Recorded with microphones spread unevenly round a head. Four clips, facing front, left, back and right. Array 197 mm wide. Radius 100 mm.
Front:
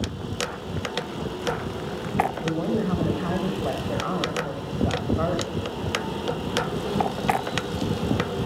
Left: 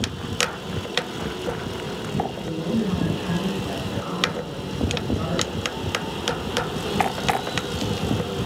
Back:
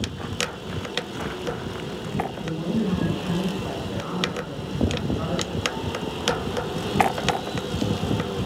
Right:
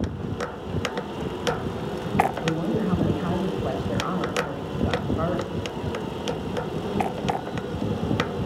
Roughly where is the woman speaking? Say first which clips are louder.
Even, front 1 dB; ahead right.